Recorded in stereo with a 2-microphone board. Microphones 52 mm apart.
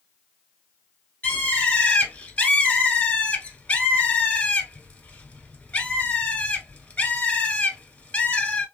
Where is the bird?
25° left (ahead or behind), 1.2 m.